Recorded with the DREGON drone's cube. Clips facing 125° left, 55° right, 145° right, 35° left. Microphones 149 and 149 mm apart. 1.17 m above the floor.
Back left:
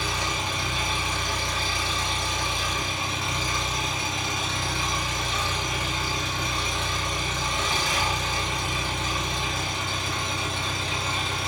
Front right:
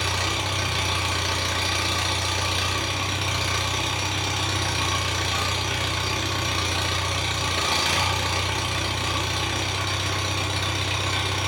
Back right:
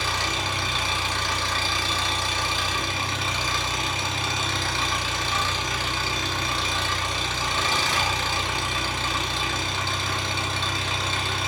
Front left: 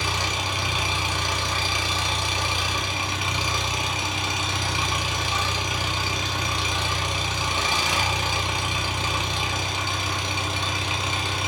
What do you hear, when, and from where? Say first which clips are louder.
0.0 s an engine running: front right 1 dB, even; 40° right, 0.8 m